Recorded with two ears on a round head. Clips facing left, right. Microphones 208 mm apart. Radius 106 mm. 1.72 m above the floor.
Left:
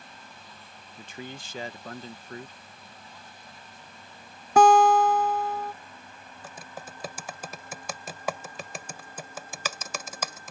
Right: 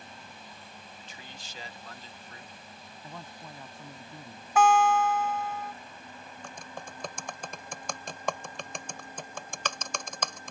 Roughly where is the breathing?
I don't hear breathing.